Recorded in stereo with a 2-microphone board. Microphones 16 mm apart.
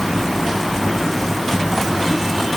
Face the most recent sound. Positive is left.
No sound to turn to.